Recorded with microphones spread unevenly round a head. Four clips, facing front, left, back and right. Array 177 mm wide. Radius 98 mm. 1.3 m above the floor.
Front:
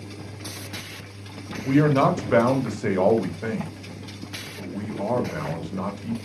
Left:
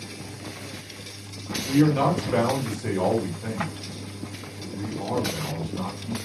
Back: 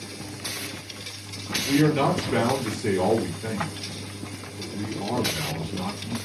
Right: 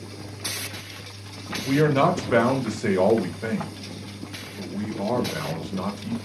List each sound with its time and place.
1.6 s a man speaking: 50° right, 1.2 m